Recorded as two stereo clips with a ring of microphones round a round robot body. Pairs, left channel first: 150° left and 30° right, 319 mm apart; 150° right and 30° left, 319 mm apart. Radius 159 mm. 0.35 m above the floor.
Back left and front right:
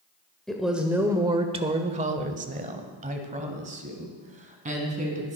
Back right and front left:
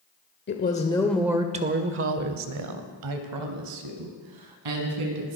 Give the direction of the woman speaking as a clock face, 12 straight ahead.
4 o'clock.